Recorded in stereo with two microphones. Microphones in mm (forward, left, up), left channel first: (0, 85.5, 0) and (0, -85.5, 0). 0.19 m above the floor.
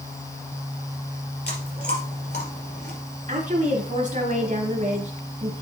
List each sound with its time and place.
1.5 s chewing: 70° left (ahead or behind), 3 m
3.3 s a woman speaking: 50° right (ahead or behind), 2 m